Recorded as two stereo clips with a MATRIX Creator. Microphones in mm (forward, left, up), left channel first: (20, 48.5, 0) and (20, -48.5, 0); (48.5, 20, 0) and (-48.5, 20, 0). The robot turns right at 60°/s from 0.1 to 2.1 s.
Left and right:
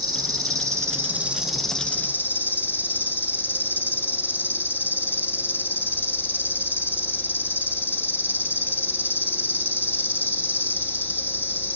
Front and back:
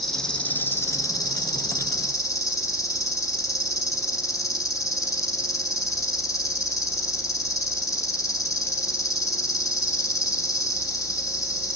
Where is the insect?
90° right, 1.0 m; by 11.8 s 30° left, 1.0 m.